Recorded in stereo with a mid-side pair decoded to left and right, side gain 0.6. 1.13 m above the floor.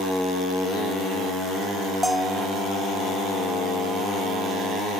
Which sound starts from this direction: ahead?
A bell, at 2.0 s.